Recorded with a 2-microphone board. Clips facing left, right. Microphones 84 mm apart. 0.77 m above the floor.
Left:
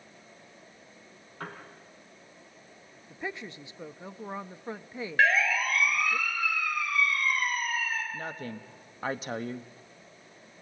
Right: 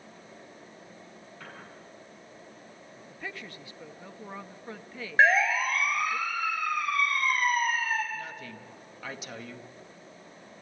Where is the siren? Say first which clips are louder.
Right 3 dB; 25° right (ahead or behind), 5 m; by 8.0 s 55° right (ahead or behind), 6 m.